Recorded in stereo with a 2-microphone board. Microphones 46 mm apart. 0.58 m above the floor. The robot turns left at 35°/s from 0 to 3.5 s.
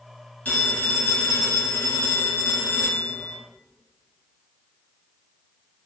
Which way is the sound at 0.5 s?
145° left.